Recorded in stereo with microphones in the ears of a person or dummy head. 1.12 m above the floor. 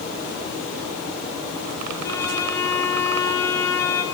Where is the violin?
20° left (ahead or behind), 3 m.